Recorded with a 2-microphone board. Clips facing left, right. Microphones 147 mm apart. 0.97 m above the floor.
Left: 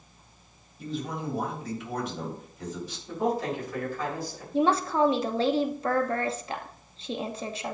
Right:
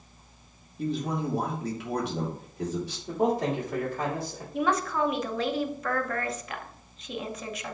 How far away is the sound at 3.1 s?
About 3.5 m.